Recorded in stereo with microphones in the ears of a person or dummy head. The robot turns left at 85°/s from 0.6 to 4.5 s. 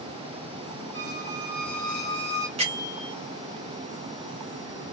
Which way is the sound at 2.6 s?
140° right.